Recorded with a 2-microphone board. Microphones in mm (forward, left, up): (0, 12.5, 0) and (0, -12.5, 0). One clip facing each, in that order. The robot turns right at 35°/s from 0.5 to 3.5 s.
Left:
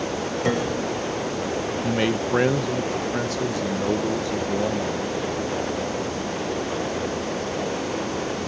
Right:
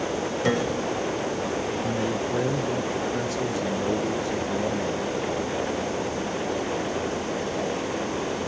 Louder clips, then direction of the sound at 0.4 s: Left 1 dB; 5° right (ahead or behind).